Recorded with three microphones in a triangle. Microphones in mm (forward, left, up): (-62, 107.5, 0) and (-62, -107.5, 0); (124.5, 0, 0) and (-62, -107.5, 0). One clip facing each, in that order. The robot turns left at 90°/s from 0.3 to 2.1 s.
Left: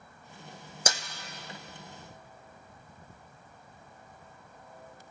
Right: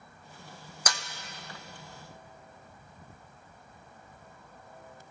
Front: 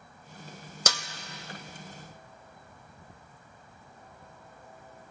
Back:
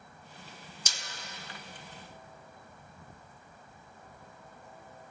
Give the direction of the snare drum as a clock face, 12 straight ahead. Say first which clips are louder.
Left 3 dB, front 16 dB; 11 o'clock.